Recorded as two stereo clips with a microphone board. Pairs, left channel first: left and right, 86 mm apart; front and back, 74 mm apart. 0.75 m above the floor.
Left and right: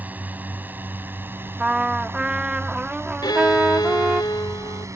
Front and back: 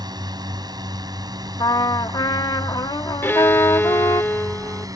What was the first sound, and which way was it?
A drone, 160° right.